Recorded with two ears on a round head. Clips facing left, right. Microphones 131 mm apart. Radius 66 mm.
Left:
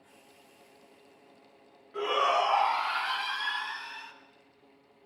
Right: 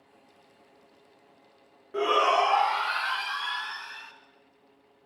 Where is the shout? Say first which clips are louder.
Right 4 dB; 50° right (ahead or behind), 0.9 m.